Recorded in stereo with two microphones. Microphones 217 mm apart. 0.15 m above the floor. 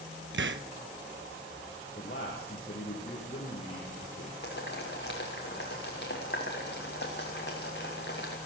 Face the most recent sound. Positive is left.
turn(degrees=55)  # may be behind; listen again after turning